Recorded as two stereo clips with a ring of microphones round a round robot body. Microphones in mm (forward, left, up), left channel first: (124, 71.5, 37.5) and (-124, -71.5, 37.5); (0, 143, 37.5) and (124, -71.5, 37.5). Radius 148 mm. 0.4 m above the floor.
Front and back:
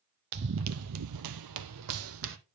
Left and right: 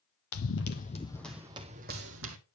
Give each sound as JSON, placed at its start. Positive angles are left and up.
{"t": 0.3, "sound": "running footsteps", "azimuth_deg": 155, "distance_m": 0.7}